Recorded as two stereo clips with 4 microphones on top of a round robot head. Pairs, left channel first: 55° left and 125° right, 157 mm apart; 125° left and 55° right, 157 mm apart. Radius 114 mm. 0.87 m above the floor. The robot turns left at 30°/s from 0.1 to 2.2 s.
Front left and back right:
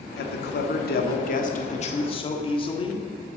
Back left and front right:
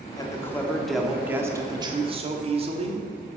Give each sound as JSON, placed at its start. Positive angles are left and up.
{"t": 0.2, "sound": "a man speaking", "azimuth_deg": 60, "distance_m": 1.6}